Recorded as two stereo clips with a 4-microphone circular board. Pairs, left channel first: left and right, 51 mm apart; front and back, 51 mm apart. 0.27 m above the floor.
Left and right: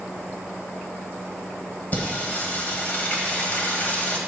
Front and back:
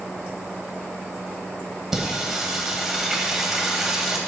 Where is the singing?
100° left, 1.5 m.